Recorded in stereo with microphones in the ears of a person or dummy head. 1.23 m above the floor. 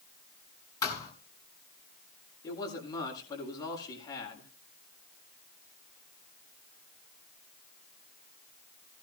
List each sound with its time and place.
0.8 s a thud: 15° left (ahead or behind), 6 m
2.4 s a man speaking: 20° left (ahead or behind), 7 m